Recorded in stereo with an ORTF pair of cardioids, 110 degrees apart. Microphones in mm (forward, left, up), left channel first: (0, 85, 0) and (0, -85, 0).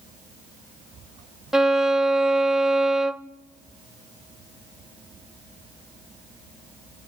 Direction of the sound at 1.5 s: Straight ahead.